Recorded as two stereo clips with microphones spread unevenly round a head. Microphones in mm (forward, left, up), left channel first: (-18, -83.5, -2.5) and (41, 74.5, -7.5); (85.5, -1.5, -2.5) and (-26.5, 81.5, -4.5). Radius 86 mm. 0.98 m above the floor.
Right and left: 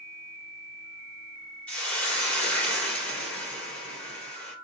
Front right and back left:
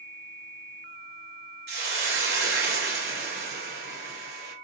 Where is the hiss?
165° left, 3 m.